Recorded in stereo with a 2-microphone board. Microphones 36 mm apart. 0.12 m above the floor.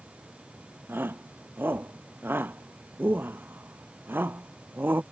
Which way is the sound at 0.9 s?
75° right (ahead or behind).